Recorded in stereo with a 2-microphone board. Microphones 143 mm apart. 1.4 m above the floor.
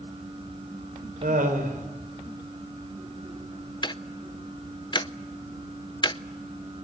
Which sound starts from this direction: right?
Laughter, at 1.2 s.